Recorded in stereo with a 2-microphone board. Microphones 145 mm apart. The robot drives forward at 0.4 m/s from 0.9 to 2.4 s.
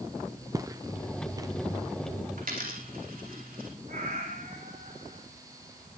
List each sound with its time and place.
0.5 s footsteps: 20° right (ahead or behind), 1.0 m; by 2.2 s 25° right (ahead or behind), 3 m
2.4 s a dropped coin: 80° right, 4.5 m
3.9 s a cat meowing: 70° right (ahead or behind), 7 m